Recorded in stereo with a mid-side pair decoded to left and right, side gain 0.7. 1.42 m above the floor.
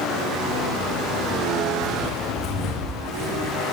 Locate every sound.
1.8 s footsteps: 55° left, 5.5 m; by 3.5 s 25° left, 4.5 m